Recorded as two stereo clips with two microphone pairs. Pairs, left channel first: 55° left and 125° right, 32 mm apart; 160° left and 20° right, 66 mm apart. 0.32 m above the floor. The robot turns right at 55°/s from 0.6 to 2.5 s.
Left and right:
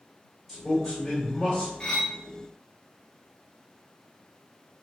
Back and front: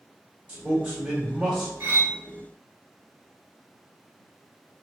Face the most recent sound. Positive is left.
turn(degrees=35)